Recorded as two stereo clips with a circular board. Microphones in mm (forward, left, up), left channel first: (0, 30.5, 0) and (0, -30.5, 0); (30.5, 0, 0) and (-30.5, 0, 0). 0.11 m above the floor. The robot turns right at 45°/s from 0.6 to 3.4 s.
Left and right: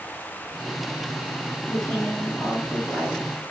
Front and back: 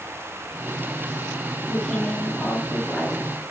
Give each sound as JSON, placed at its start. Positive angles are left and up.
{"t": 1.7, "sound": "a woman speaking", "azimuth_deg": 15, "distance_m": 1.5}